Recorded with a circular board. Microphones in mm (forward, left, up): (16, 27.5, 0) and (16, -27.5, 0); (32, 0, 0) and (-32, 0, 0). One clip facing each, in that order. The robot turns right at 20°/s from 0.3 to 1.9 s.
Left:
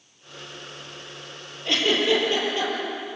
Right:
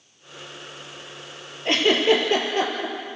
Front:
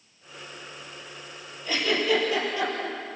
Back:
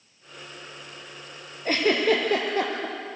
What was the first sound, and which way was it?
A giggle, 145° right.